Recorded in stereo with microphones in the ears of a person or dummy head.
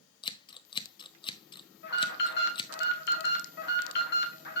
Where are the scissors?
30° left (ahead or behind), 0.6 m.